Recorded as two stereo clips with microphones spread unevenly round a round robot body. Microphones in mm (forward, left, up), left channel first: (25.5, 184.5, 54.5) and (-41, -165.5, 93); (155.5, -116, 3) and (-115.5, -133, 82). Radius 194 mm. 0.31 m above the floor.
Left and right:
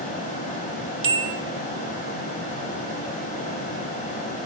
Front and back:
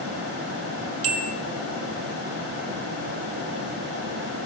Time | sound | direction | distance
1.0 | a bell | 145° right | 0.9 m